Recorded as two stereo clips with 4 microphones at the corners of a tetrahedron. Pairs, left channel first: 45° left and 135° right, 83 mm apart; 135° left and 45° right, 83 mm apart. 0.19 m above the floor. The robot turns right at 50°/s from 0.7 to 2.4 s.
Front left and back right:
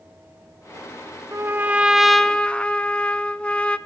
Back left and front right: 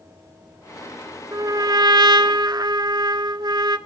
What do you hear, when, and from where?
1.3 s a trumpet: 85° right, 0.6 m; by 3.8 s 30° right, 0.6 m